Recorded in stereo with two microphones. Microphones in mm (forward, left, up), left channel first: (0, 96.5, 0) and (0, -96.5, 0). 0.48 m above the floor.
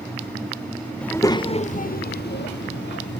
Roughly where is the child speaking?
Centre.